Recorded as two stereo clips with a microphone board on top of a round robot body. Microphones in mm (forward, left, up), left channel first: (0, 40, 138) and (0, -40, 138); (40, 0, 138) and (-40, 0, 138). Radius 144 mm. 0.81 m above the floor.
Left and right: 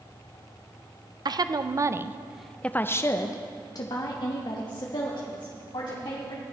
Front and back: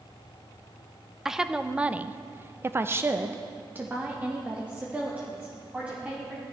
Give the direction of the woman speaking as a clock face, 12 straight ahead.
3 o'clock.